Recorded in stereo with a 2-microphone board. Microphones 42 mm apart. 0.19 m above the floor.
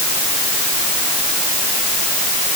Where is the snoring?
I don't hear snoring.